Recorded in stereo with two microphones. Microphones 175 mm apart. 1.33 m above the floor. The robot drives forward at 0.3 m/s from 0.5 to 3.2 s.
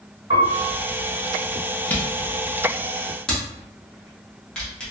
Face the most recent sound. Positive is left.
turn(degrees=5)  # may be behind; listen again after turning